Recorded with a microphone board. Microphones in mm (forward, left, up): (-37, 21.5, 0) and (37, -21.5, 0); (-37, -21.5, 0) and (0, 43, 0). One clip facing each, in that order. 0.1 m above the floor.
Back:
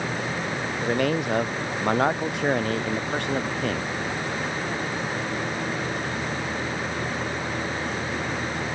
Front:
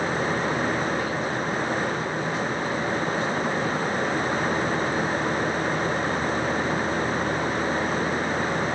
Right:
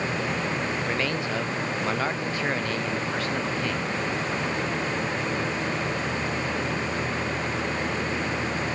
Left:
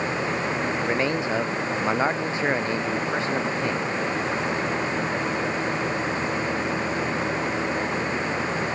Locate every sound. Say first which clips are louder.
0.8 s a man speaking: back 2 dB, left 3 dB; 130° left